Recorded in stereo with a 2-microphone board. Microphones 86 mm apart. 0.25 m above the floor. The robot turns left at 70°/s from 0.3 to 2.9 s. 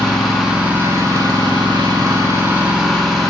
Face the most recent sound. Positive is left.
turn(degrees=180)